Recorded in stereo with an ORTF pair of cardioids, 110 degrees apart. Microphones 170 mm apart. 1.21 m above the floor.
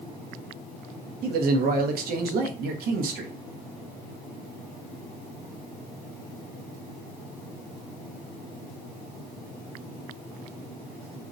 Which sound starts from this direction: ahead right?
A man speaking, at 1.2 s.